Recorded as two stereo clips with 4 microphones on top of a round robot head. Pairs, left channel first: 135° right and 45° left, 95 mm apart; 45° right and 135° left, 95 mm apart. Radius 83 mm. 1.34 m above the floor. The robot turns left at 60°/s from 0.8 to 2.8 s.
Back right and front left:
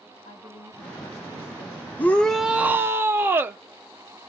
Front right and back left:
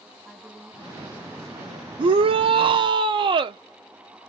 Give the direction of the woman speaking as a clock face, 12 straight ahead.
4 o'clock.